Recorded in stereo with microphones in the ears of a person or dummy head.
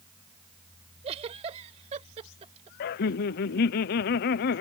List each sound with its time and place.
1.0 s a giggle: 35° right (ahead or behind)
2.8 s laughter: 40° left (ahead or behind)